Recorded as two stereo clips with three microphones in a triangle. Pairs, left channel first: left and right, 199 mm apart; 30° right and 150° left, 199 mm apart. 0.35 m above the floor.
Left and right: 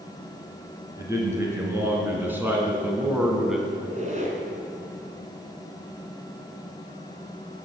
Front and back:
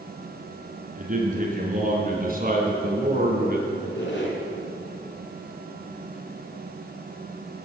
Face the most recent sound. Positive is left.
turn(degrees=-40)